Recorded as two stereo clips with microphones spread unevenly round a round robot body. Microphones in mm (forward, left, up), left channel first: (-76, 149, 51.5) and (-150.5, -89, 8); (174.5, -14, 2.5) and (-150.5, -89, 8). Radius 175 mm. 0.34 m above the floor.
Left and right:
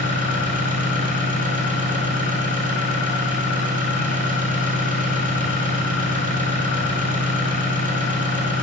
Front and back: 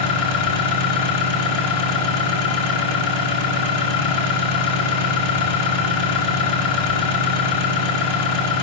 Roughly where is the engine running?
Ahead.